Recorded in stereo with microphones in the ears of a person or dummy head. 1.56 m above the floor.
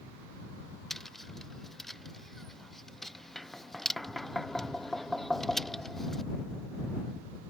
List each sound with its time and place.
0.9 s tapping: centre (ahead or behind)